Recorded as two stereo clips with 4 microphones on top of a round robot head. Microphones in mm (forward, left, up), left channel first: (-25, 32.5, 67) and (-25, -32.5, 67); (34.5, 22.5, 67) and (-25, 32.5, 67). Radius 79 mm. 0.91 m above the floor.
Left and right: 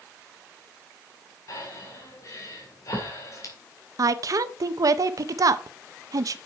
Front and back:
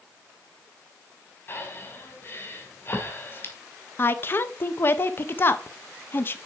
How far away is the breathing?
About 2 m.